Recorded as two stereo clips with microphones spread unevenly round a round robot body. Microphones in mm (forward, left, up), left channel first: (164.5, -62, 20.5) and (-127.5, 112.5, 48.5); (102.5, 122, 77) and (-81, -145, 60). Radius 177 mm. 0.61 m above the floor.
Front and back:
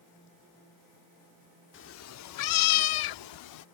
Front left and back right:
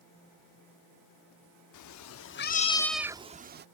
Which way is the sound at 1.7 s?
25° left.